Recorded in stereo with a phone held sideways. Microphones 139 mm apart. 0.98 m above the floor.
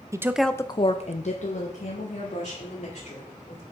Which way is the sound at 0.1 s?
20° right (ahead or behind).